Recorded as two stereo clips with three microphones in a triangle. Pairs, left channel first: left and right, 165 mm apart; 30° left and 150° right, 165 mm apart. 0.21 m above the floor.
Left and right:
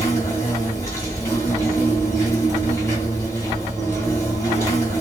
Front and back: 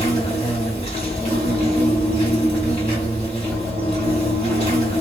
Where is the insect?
30° left, 1.8 m.